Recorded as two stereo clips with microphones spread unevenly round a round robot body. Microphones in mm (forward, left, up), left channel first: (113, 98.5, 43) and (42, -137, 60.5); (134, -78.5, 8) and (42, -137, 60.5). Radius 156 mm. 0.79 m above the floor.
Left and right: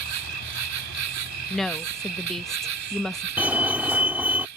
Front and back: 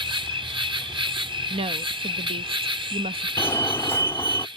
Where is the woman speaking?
155° left.